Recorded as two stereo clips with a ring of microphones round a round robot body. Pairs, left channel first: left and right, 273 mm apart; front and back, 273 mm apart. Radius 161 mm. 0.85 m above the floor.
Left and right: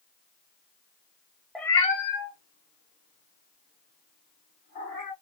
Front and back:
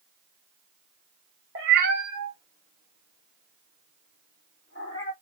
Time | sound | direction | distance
1.6 | a cat meowing | straight behind | 0.6 m